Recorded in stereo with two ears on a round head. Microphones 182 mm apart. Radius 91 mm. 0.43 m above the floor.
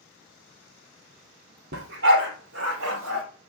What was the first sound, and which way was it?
A dog barking, 55° right (ahead or behind).